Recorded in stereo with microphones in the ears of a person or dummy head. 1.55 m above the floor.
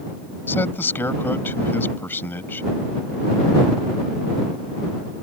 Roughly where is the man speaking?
Centre.